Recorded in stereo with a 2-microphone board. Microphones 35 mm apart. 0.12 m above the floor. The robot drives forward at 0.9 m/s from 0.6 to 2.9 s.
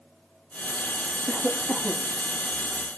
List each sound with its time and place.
1.3 s a cough: 35° right (ahead or behind), 4.5 m; by 2.1 s 30° right (ahead or behind), 5 m